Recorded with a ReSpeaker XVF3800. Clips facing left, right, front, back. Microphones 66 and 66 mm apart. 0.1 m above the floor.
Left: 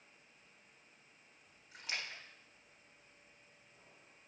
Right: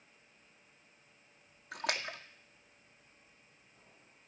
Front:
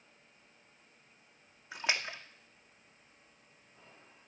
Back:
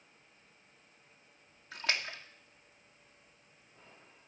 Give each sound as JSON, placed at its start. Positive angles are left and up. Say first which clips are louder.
{"t": 1.7, "sound": "a splash", "louder": "right 7 dB, front 1 dB", "azimuth_deg": -70, "distance_m": 1.3}